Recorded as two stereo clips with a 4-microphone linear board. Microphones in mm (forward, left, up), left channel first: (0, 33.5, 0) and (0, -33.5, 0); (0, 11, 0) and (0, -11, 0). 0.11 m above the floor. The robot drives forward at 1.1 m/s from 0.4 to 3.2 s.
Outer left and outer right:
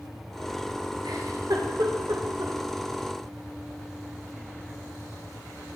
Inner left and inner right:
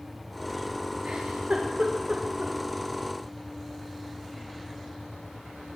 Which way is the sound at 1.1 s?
80° right.